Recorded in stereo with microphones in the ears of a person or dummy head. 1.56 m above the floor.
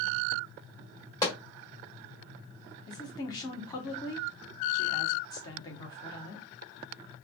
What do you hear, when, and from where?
1.2 s a pop: 20° left (ahead or behind), 1.5 m
2.9 s a woman speaking: 20° left (ahead or behind), 0.8 m